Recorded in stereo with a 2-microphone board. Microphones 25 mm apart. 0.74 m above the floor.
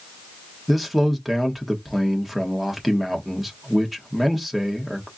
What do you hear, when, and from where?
0.7 s a man speaking: 10° right (ahead or behind), 1.4 m